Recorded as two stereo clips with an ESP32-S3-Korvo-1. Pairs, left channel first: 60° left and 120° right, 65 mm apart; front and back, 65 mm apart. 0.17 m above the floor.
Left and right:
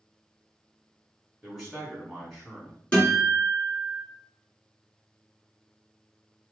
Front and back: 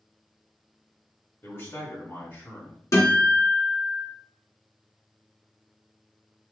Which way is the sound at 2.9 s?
5° right.